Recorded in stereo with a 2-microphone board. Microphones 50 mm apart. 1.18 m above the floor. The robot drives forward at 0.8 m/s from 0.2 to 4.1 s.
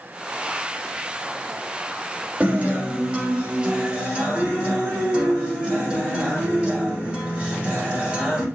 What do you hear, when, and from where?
2.4 s a guitar: 30° right (ahead or behind), 3 m; by 8.4 s 20° right (ahead or behind), 4 m